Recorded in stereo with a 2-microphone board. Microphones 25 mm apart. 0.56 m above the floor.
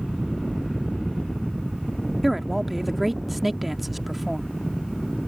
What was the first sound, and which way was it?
A man speaking, 5° right (ahead or behind).